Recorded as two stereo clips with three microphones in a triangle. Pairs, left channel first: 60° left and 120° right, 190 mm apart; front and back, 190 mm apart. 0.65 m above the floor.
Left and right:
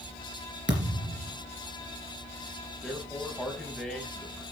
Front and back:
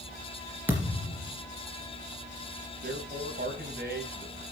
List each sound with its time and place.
0.7 s a thud: 100° right, 3.5 m
2.8 s a man speaking: 150° left, 4 m